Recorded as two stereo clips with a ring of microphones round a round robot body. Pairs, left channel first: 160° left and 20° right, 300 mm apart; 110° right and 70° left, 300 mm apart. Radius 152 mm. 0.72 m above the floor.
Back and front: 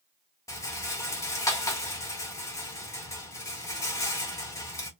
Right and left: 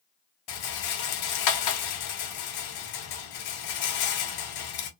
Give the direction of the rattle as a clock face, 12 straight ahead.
4 o'clock.